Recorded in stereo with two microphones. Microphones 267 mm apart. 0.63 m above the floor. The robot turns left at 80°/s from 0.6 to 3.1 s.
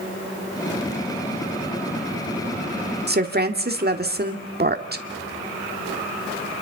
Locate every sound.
3.1 s a woman speaking: 40° right (ahead or behind), 1.7 m; by 5.0 s 35° right (ahead or behind), 1.7 m